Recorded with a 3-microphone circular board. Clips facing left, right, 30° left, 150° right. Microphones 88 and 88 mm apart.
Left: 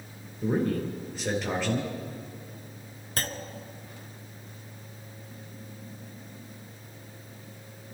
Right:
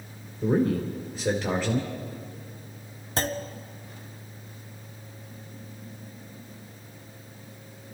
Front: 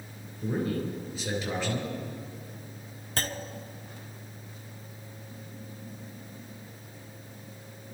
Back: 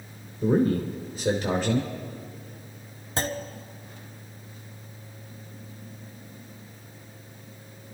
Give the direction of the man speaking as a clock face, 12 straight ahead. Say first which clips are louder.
Right 3 dB, back 8 dB; 6 o'clock.